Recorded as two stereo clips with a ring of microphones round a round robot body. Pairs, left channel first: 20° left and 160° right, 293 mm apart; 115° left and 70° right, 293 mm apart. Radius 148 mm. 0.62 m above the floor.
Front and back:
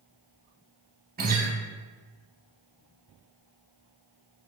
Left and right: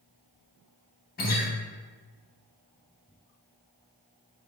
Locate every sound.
1.2 s a guitar: 155° left, 0.5 m